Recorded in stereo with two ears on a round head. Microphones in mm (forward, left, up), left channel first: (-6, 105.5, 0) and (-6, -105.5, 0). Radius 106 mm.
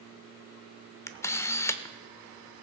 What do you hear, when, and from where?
1.1 s a camera shutter: 10° left (ahead or behind), 0.5 m